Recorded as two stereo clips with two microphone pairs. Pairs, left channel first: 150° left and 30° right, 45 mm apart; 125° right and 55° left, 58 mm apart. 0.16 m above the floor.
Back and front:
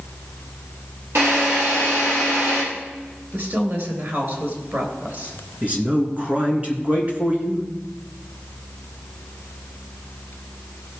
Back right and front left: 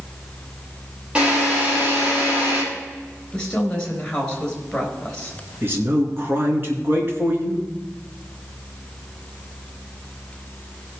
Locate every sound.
1.1 s a drill: 15° right, 5.5 m
3.3 s a woman speaking: 55° right, 3 m
5.6 s a man speaking: 15° left, 2 m